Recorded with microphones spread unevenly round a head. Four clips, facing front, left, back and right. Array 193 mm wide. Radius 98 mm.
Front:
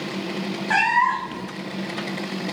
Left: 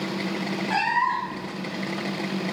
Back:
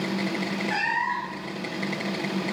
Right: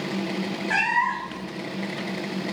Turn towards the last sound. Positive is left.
turn(degrees=10)